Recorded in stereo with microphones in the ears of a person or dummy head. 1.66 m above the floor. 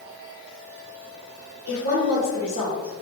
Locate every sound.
1.7 s a woman speaking: 85° right, 1.9 m; by 3.0 s 75° right (ahead or behind), 3 m